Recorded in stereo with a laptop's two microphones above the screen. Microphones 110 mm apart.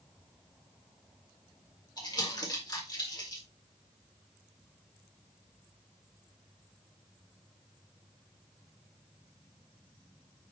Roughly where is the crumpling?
Left.